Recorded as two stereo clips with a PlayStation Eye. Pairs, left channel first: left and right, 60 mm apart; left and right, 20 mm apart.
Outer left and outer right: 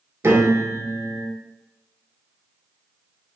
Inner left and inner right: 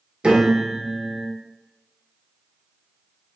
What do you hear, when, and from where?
0.2 s a piano: 50° right (ahead or behind), 0.7 m